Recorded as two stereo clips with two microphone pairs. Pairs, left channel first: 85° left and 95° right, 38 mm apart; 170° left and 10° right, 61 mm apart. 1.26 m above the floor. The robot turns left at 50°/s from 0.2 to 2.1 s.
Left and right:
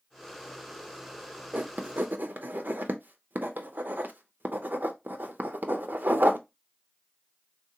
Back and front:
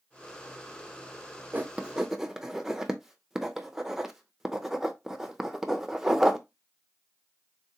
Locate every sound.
1.5 s writing: 60° right, 0.5 m; by 6.4 s 90° right, 0.5 m